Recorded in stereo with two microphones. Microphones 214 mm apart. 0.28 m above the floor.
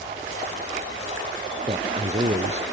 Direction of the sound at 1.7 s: 30° right (ahead or behind).